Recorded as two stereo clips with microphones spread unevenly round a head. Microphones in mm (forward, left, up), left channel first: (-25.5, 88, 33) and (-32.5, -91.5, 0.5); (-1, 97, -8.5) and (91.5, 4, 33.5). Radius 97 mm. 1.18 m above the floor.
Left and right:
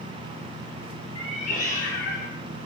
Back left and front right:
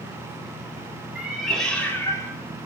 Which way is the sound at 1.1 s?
30° left.